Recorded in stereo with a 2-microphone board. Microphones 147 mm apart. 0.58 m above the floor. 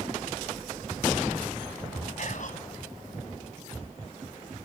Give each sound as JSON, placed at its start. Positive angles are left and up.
{"t": 2.2, "sound": "whispering", "side_deg": 60, "distance_m": 4.5}